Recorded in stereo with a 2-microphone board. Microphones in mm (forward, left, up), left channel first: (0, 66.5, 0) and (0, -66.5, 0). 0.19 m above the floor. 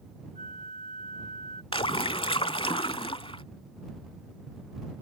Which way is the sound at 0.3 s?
80° right.